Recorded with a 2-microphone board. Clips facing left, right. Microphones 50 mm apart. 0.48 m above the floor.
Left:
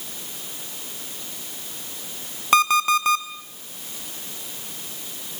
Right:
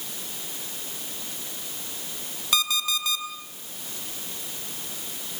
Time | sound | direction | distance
2.5 | an alarm clock | 45° left (ahead or behind) | 1.7 m